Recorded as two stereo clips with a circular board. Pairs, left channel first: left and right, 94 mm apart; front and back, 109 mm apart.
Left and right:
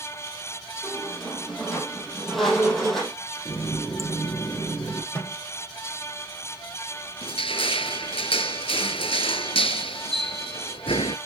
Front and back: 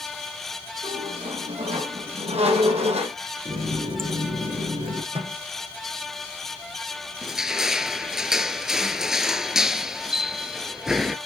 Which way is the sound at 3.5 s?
145° left.